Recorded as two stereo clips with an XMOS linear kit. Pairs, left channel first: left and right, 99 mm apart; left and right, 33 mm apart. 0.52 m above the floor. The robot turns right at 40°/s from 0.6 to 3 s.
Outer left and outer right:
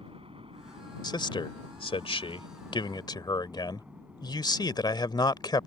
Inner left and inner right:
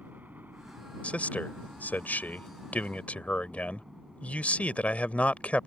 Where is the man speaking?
50° left; by 5.7 s 130° left.